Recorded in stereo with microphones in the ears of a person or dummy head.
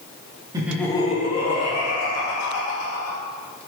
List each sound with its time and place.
0.5 s laughter: 20° right (ahead or behind), 0.5 m; by 3.2 s 75° left (ahead or behind), 2 m